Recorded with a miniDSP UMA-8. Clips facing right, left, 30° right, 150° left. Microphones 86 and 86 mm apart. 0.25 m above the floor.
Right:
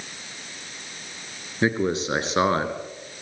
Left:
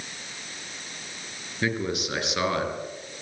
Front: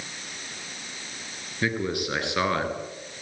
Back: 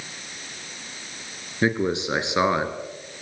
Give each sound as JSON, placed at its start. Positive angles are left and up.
{"t": 1.6, "sound": "a man speaking", "azimuth_deg": -150, "distance_m": 3.5}